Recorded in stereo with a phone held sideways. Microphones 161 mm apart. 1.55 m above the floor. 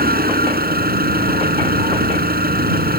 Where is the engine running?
70° right (ahead or behind).